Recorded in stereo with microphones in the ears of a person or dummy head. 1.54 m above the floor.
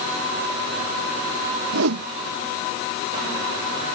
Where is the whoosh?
75° right (ahead or behind).